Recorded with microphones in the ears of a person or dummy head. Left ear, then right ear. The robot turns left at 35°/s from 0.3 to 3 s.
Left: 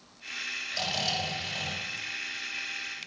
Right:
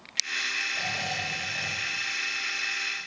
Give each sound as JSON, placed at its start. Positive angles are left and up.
{"t": 0.7, "sound": "snoring", "side_deg": 65, "distance_m": 4.5}